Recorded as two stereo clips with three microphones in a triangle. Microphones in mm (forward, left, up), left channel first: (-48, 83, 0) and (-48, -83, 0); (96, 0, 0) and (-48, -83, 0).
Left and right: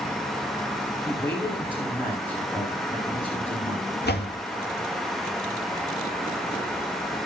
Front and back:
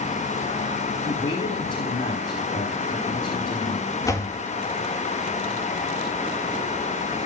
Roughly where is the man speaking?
Ahead.